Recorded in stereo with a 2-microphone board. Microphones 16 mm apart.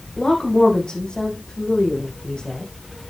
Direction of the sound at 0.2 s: 65° left (ahead or behind).